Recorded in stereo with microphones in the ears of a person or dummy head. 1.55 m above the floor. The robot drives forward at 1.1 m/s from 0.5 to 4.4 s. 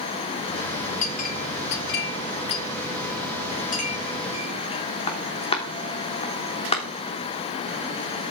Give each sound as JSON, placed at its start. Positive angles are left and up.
{"t": 1.0, "sound": "a clink", "side_deg": 45, "distance_m": 2.0}